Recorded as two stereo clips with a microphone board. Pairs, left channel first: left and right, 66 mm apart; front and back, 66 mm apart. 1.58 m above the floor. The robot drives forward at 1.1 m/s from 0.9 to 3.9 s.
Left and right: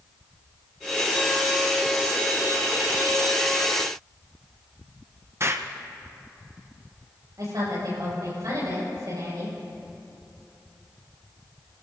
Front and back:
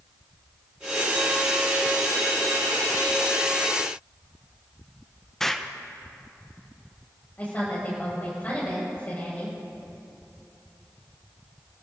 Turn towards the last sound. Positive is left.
turn(degrees=-65)